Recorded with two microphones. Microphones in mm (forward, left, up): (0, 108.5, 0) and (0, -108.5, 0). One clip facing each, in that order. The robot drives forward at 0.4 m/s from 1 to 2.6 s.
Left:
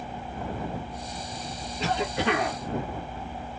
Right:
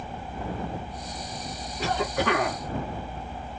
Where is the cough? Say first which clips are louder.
Right 1 dB; 25° left (ahead or behind), 1.9 m.